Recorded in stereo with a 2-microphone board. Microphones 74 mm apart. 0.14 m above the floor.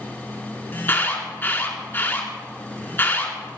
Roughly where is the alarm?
Left.